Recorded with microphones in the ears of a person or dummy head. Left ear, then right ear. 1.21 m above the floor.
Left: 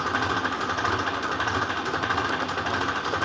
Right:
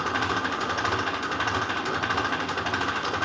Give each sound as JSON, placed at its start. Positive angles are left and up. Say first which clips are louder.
{"t": 0.0, "sound": "an engine running", "louder": "left 1 dB", "side_deg": -5, "distance_m": 1.3}